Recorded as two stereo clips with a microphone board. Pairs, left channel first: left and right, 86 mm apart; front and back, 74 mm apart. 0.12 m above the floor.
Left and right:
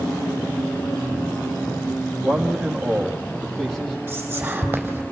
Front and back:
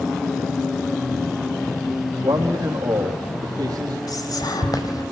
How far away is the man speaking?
About 4 m.